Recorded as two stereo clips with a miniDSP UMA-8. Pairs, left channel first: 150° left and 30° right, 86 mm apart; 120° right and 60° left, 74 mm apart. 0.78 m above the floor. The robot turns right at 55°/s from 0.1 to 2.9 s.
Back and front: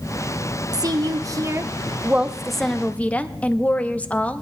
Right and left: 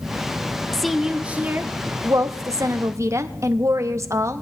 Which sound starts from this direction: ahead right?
A woman speaking, at 0.7 s.